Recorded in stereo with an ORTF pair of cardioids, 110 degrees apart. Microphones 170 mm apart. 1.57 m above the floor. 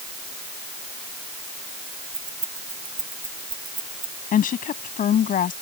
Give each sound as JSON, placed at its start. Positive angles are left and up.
{"t": 2.1, "sound": "keys jangling", "azimuth_deg": -30}
{"t": 4.3, "sound": "a woman speaking", "azimuth_deg": 55}